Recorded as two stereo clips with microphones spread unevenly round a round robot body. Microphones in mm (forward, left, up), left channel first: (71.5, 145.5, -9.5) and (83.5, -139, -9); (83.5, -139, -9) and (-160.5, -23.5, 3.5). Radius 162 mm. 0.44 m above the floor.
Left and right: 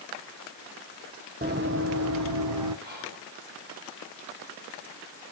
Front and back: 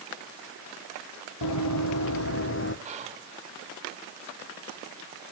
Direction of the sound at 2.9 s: 145° right.